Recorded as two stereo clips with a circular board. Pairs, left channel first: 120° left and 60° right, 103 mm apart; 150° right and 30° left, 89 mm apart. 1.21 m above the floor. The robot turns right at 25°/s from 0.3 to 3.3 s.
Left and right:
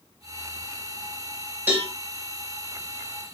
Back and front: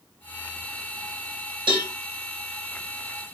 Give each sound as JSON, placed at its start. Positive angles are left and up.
{"t": 1.7, "sound": "a cowbell", "azimuth_deg": 10, "distance_m": 1.7}